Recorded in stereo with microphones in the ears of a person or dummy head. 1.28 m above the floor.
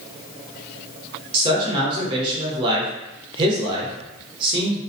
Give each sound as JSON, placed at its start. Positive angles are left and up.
{"t": 1.3, "sound": "a man speaking", "side_deg": -35, "distance_m": 0.9}